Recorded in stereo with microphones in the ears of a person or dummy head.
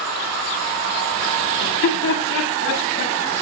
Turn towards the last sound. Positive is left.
turn(degrees=70)  # may be behind; listen again after turning